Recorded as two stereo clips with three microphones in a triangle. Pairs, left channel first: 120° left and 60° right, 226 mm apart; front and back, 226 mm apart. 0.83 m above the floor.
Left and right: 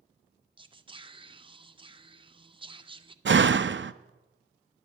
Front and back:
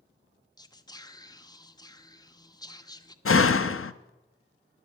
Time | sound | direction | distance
0.6 | whispering | 45° right | 0.6 m
3.2 | a door slam | 25° right | 0.5 m